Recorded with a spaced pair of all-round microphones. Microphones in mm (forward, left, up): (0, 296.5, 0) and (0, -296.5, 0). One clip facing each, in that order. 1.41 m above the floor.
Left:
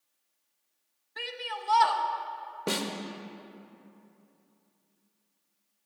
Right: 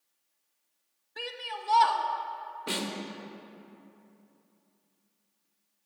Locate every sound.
1.2 s a shout: 5° left (ahead or behind), 0.5 m
2.7 s a snare drum: 75° left (ahead or behind), 0.8 m